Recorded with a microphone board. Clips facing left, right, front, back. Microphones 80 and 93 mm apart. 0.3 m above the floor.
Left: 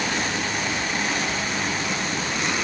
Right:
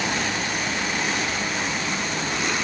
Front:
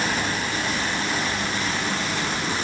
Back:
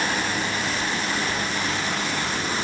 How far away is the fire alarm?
I don't hear a fire alarm.